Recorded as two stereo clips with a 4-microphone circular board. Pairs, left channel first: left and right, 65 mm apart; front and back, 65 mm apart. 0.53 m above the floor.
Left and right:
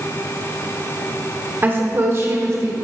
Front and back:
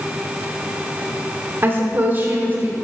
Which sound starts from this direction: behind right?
A woman speaking, at 1.6 s.